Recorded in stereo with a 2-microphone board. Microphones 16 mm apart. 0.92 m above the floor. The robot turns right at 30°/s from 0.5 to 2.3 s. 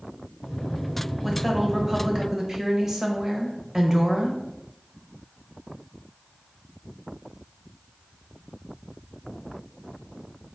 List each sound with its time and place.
1.2 s a woman speaking: straight behind, 0.8 m; by 4.4 s 145° right, 0.8 m